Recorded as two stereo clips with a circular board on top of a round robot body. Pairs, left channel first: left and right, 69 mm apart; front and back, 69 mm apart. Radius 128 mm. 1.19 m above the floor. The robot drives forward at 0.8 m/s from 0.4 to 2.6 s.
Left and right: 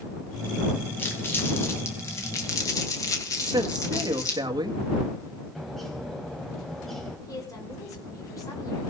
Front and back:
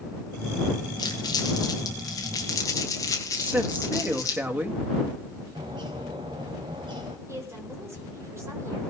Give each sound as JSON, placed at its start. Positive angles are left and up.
{"t": 1.0, "sound": "crumpling", "azimuth_deg": 25, "distance_m": 3.0}
{"t": 3.4, "sound": "a man speaking", "azimuth_deg": -115, "distance_m": 1.9}
{"t": 5.5, "sound": "a bird", "azimuth_deg": 175, "distance_m": 1.3}
{"t": 7.3, "sound": "a woman speaking", "azimuth_deg": 130, "distance_m": 5.0}